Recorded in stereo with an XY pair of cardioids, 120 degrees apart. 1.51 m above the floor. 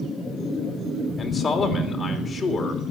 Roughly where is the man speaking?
Ahead left.